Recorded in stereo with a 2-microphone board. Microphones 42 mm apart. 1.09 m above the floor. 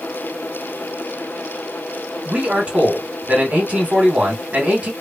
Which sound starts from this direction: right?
A man speaking, at 2.2 s.